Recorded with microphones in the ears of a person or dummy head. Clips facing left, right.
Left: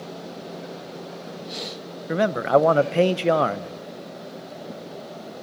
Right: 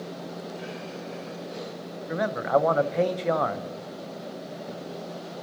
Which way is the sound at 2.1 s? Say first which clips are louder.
Left 5 dB; 50° left (ahead or behind).